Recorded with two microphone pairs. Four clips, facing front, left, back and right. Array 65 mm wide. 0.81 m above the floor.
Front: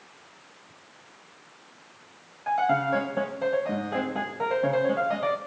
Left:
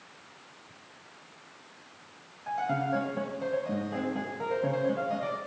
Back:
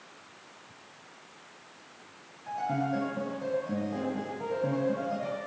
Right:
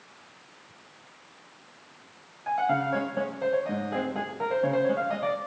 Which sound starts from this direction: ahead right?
A piano, at 2.5 s.